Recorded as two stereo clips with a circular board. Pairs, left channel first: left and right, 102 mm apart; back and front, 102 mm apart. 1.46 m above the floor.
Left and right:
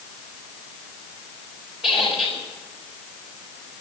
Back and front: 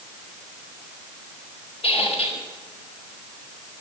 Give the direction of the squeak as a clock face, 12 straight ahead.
6 o'clock.